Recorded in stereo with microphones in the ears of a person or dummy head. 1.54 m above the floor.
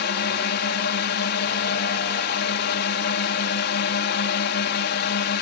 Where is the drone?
55° left (ahead or behind).